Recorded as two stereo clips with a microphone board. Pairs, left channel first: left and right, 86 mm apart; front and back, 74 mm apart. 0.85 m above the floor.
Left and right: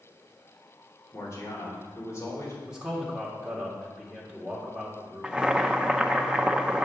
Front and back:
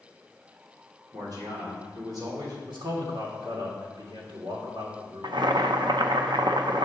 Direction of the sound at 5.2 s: 170° right.